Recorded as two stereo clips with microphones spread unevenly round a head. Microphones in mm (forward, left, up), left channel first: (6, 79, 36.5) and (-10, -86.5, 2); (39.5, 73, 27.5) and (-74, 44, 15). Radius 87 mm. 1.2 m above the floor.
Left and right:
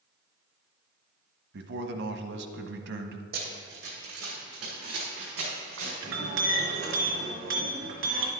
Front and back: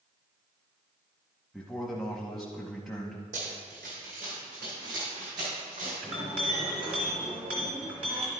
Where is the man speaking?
75° right, 0.8 m.